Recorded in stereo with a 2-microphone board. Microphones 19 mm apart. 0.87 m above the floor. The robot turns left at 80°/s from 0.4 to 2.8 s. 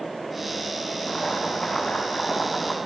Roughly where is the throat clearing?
No throat clearing in this recording.